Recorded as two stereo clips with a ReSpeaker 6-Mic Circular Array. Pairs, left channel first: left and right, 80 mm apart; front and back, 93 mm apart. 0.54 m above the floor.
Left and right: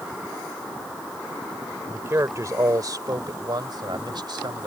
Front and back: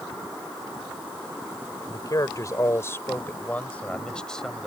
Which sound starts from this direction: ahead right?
A man speaking, at 1.9 s.